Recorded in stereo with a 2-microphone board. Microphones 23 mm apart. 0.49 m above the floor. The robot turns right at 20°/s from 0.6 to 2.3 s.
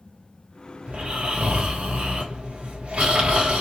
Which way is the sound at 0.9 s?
60° right (ahead or behind).